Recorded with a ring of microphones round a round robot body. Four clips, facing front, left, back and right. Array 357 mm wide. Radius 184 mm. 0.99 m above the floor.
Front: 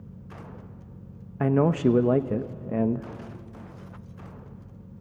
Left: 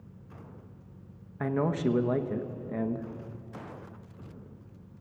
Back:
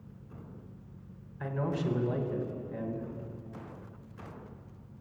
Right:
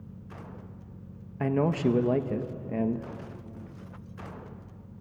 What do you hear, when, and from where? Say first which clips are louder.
1.4 s a man speaking: right 2 dB, front 12 dB; 10° right, 0.9 m